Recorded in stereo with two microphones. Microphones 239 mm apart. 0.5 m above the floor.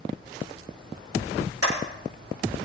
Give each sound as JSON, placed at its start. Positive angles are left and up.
{"t": 1.6, "sound": "a clap", "side_deg": -85, "distance_m": 8.0}